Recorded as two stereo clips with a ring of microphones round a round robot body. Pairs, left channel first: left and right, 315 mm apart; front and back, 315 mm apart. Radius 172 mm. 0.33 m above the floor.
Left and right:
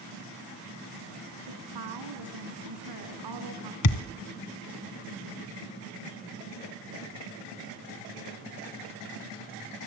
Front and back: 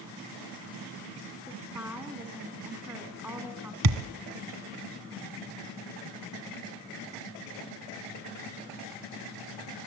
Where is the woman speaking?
95° right, 3.5 m.